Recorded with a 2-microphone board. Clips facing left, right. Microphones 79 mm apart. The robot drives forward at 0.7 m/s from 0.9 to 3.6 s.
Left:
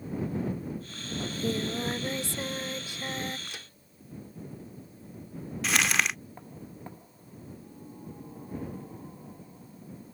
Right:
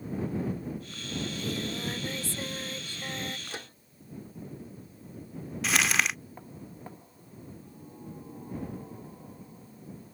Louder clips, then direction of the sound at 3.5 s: Right 4 dB; 35° right (ahead or behind).